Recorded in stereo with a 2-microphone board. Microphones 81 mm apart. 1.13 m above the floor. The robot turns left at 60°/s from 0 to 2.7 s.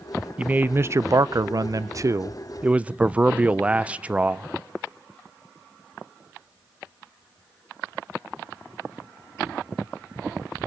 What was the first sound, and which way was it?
A man speaking, 20° right.